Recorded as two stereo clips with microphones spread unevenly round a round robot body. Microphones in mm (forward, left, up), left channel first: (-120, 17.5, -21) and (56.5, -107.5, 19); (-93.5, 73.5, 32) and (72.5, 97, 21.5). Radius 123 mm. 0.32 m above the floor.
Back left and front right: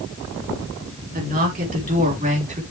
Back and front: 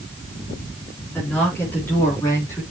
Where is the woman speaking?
90° right, 4.5 m; by 2.6 s 95° right, 4 m.